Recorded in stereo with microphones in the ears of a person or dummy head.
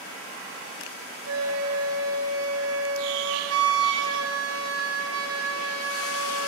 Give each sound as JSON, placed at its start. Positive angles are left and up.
{"t": 1.3, "sound": "a flute", "side_deg": -80, "distance_m": 1.6}